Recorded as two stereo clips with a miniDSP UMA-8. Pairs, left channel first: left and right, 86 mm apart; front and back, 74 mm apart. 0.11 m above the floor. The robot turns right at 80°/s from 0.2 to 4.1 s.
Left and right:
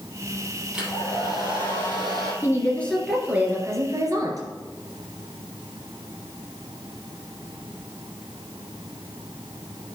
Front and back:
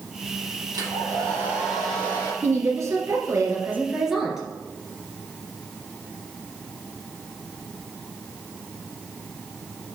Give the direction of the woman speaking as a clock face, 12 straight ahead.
8 o'clock.